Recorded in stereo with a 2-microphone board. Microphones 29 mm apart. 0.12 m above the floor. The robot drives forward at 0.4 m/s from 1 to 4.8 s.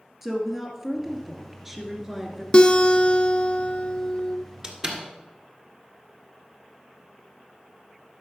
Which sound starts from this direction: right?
A door slam, at 4.6 s.